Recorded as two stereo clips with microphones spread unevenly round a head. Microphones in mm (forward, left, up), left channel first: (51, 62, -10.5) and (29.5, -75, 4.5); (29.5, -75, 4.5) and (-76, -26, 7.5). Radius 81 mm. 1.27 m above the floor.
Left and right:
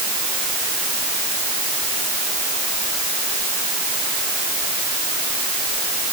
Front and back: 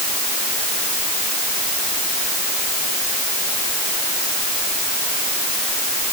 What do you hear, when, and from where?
Only background noise.